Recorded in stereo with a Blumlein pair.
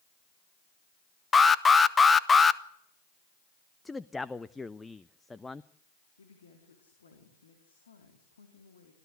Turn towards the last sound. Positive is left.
turn(degrees=70)